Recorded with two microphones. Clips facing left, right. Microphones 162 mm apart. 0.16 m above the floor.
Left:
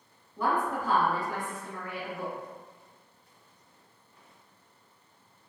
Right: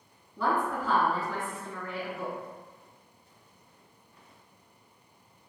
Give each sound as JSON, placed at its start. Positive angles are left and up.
{"t": 0.4, "sound": "a woman speaking", "side_deg": 20, "distance_m": 1.3}